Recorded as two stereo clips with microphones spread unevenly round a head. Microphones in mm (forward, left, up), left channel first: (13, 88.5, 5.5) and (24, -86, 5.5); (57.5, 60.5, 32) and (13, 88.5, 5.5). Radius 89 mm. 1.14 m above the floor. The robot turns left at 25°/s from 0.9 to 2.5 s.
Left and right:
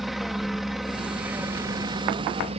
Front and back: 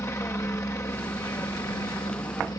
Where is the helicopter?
5° left; by 2.6 s 35° right.